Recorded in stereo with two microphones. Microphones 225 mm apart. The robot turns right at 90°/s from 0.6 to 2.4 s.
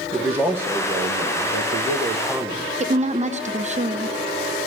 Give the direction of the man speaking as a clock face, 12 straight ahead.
6 o'clock.